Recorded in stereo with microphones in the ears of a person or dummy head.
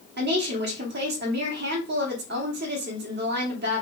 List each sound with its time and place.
0.2 s a woman speaking: 50° right (ahead or behind), 1.2 m